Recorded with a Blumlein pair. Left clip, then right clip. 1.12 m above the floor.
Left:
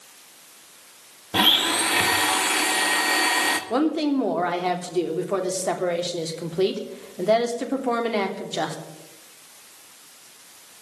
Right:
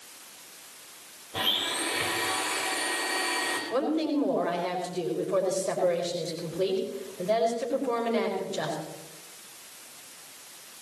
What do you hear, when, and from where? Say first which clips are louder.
1.3 s a blender: left 9 dB; 40° left, 1.5 m
3.7 s a woman speaking: left 4 dB; 55° left, 3 m